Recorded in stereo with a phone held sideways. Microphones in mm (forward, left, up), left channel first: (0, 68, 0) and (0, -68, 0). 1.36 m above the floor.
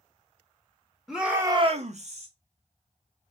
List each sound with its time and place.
1.1 s a shout: centre (ahead or behind), 0.9 m; by 2.3 s 50° right (ahead or behind), 0.8 m